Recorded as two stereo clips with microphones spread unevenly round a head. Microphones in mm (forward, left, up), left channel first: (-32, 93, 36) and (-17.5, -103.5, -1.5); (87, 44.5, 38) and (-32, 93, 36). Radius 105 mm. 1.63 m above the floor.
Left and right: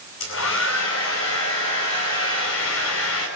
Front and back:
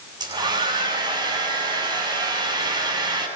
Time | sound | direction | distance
0.2 | a hair dryer | 105° left | 9 m